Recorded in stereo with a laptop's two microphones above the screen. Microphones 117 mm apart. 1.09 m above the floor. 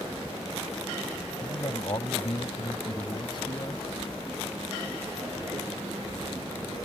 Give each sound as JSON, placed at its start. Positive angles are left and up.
{"t": 1.4, "sound": "a man speaking", "side_deg": 45}